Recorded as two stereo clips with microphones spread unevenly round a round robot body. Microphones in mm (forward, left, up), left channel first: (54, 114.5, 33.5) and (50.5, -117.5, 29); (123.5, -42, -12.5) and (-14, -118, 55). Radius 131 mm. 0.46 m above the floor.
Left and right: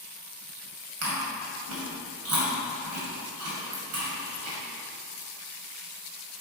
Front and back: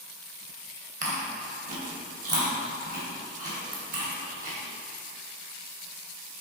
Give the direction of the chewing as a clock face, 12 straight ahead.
4 o'clock.